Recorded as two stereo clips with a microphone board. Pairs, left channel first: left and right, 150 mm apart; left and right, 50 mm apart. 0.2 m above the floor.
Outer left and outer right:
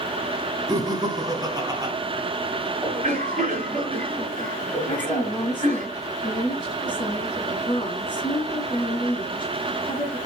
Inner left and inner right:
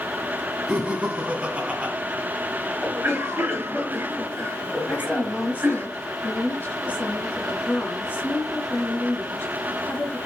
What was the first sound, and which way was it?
Laughter, 25° right (ahead or behind).